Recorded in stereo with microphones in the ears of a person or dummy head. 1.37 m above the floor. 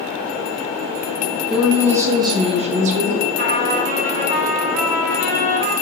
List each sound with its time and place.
1.5 s a woman speaking: 5° right (ahead or behind), 1.5 m; by 3.3 s 55° right (ahead or behind), 1.7 m
3.4 s a trumpet: 45° right (ahead or behind), 3 m